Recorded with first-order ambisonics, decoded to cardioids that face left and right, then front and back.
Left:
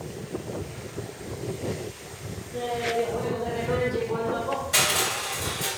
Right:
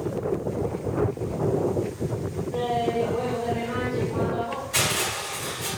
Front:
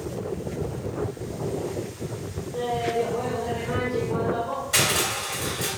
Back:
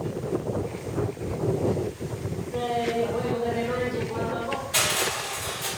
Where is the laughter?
115° right, 1.3 m; by 4.6 s 75° left, 1.3 m.